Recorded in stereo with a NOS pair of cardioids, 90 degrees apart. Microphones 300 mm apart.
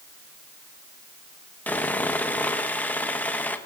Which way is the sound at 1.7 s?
5° left.